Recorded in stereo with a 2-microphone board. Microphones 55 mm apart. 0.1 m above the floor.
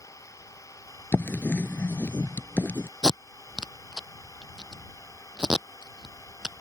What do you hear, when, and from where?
0.0 s an engine running: 90° left
1.1 s writing: 40° left (ahead or behind)
3.0 s tape being pulled: 10° right (ahead or behind)